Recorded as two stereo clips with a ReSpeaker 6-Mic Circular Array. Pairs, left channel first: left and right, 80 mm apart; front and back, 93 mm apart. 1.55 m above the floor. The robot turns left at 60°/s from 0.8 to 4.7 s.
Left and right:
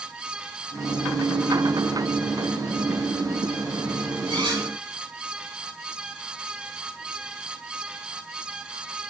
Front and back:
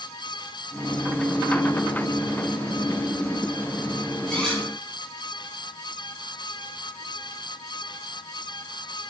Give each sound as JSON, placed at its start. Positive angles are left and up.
{"t": 4.3, "sound": "cutlery clinking", "azimuth_deg": -75, "distance_m": 4.0}